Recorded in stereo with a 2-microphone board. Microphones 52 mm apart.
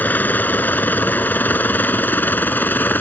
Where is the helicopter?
35° left (ahead or behind).